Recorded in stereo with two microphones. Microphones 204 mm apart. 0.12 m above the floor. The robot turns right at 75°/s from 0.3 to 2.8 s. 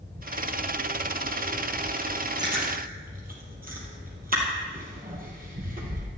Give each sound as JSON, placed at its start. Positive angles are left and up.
{"t": 2.4, "sound": "chewing", "side_deg": -20, "distance_m": 3.0}